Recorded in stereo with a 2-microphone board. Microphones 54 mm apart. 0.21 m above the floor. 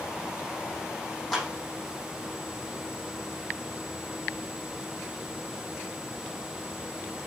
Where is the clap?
5° left (ahead or behind), 8 m.